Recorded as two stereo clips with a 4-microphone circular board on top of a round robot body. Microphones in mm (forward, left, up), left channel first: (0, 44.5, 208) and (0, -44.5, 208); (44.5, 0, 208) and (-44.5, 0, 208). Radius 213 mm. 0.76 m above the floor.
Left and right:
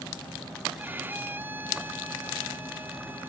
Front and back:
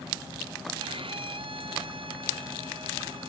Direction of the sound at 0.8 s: 160° right.